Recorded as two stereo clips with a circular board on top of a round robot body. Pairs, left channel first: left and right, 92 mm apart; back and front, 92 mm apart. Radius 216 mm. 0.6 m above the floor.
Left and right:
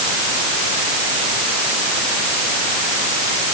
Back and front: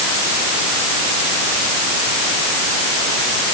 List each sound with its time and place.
Only background noise.